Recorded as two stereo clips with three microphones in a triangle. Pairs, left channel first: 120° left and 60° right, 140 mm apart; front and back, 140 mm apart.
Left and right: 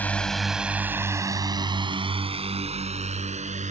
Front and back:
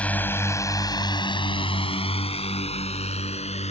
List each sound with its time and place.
0.0 s a drone: 60° left; by 3.7 s 35° right